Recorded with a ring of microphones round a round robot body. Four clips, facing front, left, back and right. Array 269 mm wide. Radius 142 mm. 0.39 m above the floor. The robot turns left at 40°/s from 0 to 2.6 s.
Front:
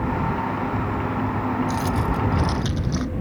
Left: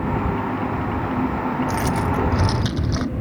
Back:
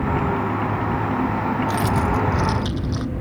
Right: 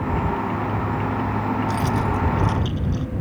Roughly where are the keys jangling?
Behind left.